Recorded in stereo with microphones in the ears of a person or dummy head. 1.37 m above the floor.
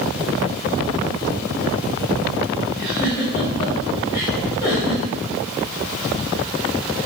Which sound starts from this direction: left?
A giggle, at 2.7 s.